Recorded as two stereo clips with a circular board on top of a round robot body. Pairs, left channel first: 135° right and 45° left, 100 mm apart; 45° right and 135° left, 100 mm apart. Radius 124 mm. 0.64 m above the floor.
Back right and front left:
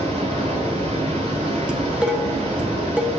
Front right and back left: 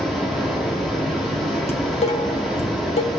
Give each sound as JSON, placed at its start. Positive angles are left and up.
{"t": 0.0, "sound": "running water", "azimuth_deg": 45, "distance_m": 5.0}
{"t": 1.7, "sound": "dishes clattering", "azimuth_deg": -35, "distance_m": 1.4}